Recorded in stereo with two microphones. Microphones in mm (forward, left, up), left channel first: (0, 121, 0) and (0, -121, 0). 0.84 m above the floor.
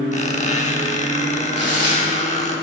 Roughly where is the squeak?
Left.